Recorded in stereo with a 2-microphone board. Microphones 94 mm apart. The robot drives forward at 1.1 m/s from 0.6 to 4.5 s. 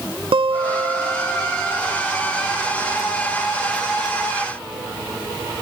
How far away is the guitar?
About 1.4 m.